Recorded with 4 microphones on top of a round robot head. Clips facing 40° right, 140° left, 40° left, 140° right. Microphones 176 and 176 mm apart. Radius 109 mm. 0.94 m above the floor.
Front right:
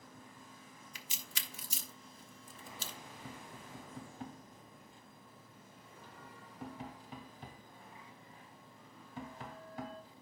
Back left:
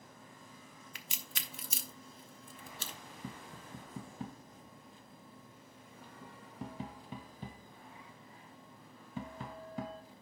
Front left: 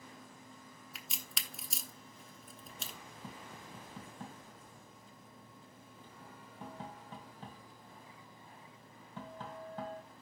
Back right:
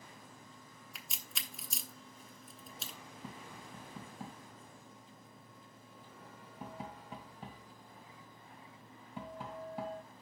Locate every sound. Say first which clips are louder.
0.9 s a crack: back left 1 dB, front left 1 dB; 130° left, 1.1 m
3.2 s tapping: back left 5 dB, back right 1 dB; 140° left, 1.7 m